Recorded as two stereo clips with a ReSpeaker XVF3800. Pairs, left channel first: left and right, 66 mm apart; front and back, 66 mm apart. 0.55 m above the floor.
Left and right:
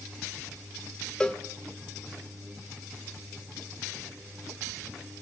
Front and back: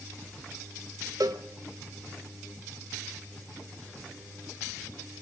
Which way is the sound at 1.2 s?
165° left.